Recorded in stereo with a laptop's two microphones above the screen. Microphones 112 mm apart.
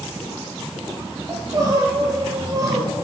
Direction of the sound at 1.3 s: 30° right (ahead or behind).